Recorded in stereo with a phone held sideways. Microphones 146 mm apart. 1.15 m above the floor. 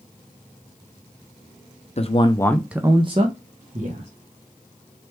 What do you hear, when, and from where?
2.0 s a man speaking: 45° left (ahead or behind), 0.7 m; by 4.1 s 65° right (ahead or behind), 1.3 m